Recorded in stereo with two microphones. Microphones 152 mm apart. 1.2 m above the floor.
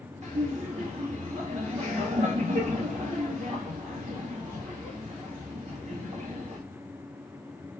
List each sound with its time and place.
0.2 s laughter: 45° right (ahead or behind), 1.8 m